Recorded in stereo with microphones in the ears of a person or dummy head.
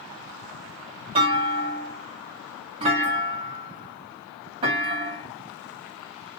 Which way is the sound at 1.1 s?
30° right (ahead or behind).